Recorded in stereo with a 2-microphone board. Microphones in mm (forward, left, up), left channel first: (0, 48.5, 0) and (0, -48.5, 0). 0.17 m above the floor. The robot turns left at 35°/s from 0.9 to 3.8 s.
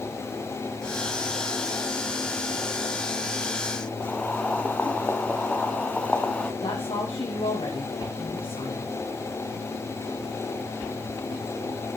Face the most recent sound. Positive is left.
turn(degrees=75)  # may be behind; listen again after turning